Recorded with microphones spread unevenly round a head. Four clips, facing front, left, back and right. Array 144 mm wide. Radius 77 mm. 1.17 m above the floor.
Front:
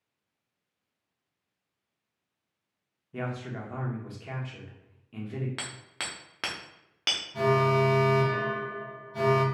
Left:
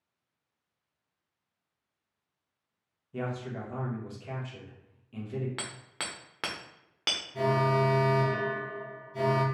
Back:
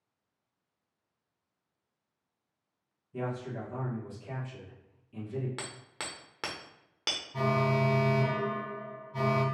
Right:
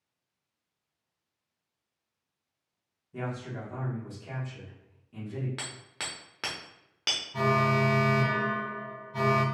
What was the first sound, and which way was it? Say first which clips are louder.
A man speaking: left 1 dB, even; 10° left.